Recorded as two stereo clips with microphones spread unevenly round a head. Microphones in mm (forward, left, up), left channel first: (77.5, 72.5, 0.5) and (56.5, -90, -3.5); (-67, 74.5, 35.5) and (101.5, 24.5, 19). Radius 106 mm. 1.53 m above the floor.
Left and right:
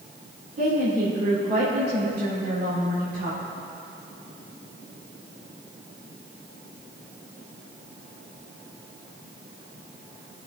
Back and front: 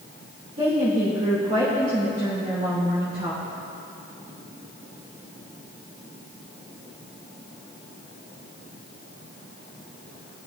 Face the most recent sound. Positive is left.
turn(degrees=-70)